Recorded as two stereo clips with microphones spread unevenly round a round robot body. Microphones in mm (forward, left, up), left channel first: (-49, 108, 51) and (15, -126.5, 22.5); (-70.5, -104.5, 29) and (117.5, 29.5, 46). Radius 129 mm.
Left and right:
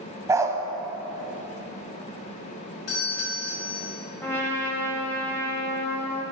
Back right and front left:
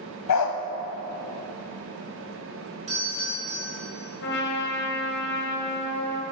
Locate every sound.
0.3 s a dog barking: 155° right, 0.9 m
2.9 s a doorbell: 95° left, 4 m
4.2 s a trumpet: 170° right, 1.7 m